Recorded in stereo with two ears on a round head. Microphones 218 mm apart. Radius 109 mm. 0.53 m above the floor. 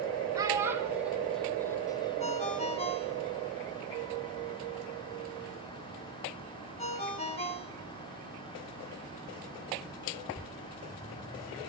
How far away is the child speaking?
About 4.5 m.